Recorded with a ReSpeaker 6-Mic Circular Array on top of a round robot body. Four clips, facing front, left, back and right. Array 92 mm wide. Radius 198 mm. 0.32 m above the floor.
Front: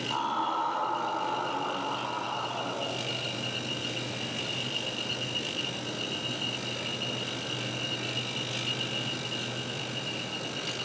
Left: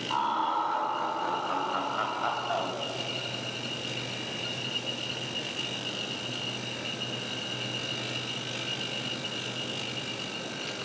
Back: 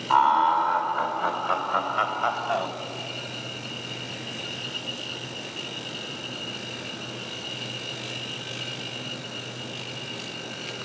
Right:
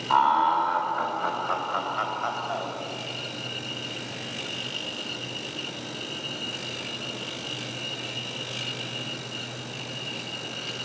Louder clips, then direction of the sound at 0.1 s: Right 8 dB, back 12 dB; 140° right.